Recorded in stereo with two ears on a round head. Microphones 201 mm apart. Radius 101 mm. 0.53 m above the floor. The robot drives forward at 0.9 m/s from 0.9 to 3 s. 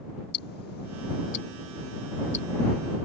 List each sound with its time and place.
0.3 s ticking: 45° left (ahead or behind); by 2.5 s 30° left (ahead or behind)